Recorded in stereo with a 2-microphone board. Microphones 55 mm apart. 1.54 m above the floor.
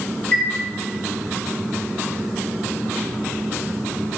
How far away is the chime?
About 3 m.